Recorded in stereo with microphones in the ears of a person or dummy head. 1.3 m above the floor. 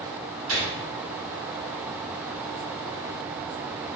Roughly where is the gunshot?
Right.